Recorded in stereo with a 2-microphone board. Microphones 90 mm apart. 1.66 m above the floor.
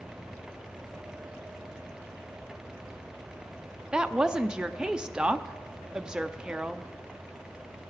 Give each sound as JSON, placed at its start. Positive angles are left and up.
{"t": 3.9, "sound": "a woman speaking", "side_deg": -10, "distance_m": 0.5}